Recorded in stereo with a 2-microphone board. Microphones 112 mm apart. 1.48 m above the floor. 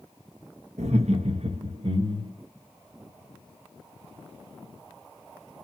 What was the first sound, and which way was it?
Laughter, 80° right.